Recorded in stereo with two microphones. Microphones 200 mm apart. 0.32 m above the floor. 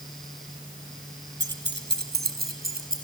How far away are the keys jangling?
About 2.5 m.